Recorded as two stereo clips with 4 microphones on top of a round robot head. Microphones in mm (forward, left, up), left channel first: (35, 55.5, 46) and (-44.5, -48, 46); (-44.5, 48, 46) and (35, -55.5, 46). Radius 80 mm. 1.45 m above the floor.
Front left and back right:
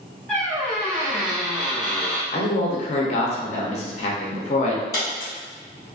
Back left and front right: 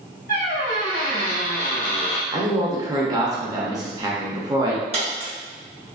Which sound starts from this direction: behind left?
A squeak, at 0.3 s.